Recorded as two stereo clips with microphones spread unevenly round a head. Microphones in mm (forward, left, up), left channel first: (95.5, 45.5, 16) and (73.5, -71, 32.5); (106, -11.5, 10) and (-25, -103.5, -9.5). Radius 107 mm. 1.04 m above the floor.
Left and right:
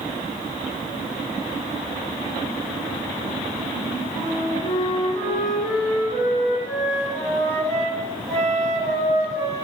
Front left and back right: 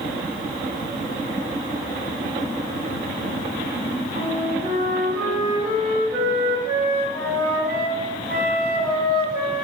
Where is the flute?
135° left, 1.4 m.